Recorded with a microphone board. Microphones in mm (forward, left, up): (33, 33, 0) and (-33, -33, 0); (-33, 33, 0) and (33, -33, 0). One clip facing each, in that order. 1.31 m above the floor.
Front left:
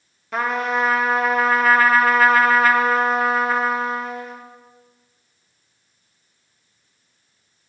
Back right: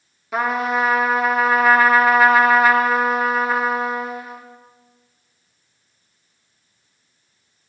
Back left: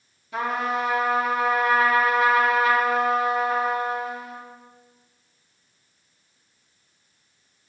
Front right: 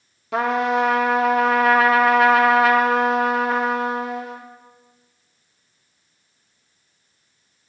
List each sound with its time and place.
0.3 s a trumpet: 50° right, 0.8 m